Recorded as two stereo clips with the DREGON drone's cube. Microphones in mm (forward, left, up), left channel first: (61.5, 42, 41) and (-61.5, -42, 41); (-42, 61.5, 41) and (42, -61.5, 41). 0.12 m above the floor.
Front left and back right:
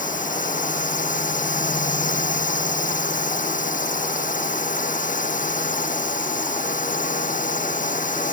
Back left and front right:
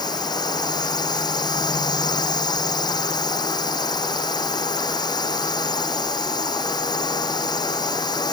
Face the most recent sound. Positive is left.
turn(degrees=65)